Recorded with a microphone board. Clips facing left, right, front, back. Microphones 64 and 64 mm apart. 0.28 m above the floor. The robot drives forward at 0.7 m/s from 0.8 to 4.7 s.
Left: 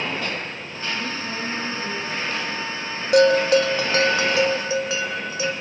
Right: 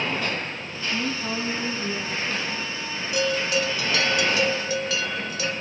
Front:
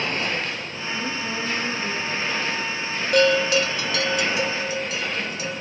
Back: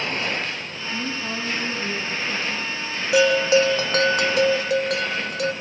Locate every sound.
0.9 s a woman speaking: 120° right, 2.5 m; by 2.8 s 140° right, 3.5 m
3.1 s a bell: 95° left, 0.6 m; by 5.5 s 155° left, 1.3 m